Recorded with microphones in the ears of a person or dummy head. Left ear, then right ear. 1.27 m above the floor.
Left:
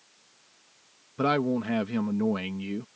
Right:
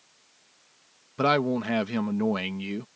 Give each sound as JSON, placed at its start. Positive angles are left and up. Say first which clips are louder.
{"t": 1.2, "sound": "a man speaking", "louder": "right 2 dB", "side_deg": -20}